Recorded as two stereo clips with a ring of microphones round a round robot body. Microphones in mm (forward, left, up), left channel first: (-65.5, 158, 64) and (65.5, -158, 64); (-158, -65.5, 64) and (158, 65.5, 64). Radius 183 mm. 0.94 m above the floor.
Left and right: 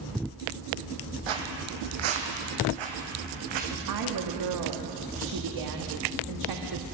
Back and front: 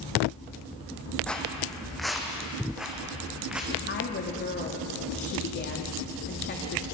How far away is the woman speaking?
About 1.8 m.